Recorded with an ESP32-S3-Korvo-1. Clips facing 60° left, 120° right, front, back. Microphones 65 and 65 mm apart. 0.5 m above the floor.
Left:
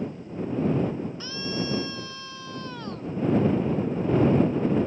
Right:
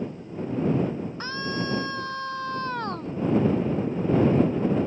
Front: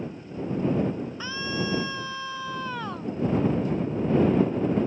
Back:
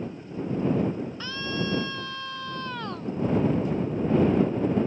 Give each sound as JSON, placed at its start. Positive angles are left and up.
{"t": 1.2, "sound": "a scream", "azimuth_deg": -80}